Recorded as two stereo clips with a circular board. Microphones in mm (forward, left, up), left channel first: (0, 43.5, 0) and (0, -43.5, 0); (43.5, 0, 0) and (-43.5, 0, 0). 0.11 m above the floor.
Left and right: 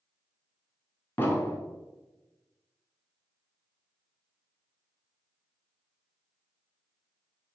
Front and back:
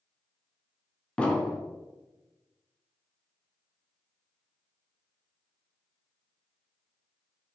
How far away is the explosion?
About 0.6 m.